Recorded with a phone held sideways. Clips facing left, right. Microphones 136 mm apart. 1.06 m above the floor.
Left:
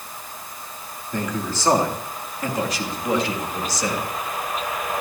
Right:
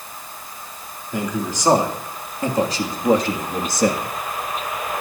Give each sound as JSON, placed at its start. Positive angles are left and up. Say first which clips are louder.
{"t": 1.1, "sound": "a man speaking", "louder": "right 2 dB", "side_deg": -10, "distance_m": 3.0}